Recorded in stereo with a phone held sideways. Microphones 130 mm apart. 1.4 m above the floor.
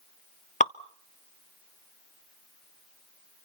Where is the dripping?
70° left (ahead or behind), 0.7 m.